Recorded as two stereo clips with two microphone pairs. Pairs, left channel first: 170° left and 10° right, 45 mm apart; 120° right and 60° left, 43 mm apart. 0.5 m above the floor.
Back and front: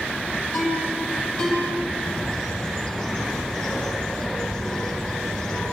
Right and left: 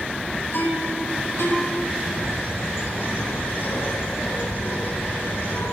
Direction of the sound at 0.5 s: 130° right.